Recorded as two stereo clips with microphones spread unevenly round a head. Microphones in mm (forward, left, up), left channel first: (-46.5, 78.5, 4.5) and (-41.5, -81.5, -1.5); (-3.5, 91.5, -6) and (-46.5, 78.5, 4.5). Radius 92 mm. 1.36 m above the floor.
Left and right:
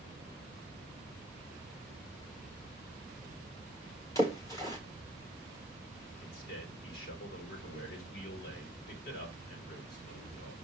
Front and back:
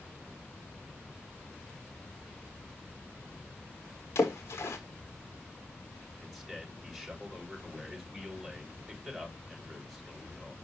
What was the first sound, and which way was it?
A splash, 25° left.